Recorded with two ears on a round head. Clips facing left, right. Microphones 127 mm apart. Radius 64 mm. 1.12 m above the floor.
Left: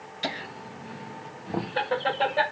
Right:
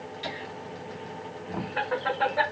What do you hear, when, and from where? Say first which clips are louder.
0.2 s laughter: left 5 dB; 65° left (ahead or behind), 1.6 m; by 2.4 s 25° left (ahead or behind), 2 m